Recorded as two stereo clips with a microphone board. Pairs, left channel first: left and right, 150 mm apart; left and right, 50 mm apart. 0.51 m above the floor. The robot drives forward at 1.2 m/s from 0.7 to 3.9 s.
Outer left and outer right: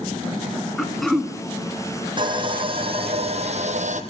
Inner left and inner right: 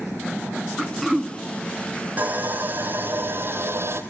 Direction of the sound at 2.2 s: 30° right (ahead or behind).